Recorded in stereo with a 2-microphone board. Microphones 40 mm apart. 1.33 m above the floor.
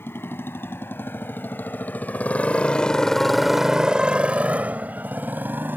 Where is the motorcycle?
75° left (ahead or behind); by 5.8 s 55° right (ahead or behind).